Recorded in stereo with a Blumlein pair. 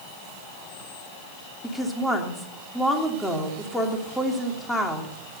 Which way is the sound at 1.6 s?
5° left.